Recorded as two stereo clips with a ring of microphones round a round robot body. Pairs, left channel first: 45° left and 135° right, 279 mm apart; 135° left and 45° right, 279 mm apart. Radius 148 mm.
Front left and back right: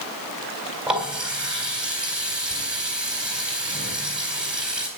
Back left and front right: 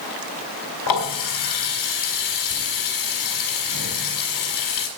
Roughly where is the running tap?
Behind left.